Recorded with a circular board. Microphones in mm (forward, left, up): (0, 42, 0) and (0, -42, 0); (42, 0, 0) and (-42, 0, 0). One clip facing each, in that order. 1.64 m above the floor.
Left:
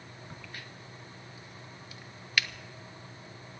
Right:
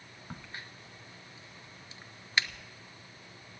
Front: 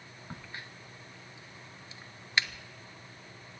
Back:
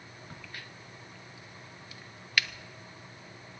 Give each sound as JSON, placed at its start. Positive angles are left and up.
{"t": 0.3, "sound": "a crack", "azimuth_deg": -45, "distance_m": 0.5}